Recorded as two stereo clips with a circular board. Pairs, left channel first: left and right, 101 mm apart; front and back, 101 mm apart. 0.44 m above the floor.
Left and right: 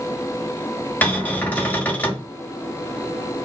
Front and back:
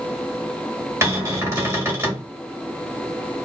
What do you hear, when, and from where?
1.0 s a cupboard door: 145° left, 1.0 m